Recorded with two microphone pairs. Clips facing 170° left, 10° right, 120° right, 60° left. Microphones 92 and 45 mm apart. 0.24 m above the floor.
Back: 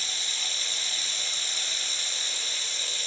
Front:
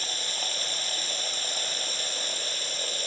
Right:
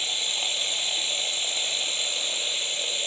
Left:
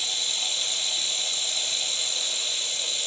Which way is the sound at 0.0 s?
55° right.